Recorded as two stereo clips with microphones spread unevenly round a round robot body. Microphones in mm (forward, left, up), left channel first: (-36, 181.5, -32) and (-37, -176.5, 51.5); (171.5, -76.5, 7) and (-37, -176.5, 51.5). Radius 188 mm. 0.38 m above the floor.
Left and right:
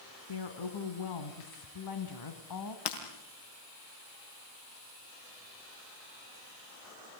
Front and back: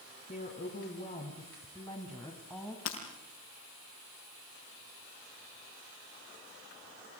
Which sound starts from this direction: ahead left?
Breaking glass, at 2.9 s.